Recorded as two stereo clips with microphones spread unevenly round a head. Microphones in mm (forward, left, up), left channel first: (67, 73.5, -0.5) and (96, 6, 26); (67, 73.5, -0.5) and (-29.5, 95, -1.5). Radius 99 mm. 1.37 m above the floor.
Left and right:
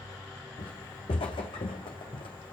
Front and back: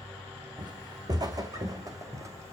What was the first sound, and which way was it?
Footsteps, 125° left.